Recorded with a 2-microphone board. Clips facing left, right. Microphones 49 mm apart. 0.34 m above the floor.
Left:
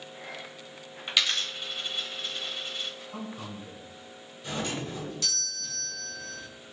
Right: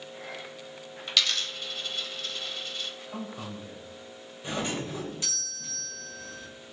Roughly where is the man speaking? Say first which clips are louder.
Right 1 dB; right.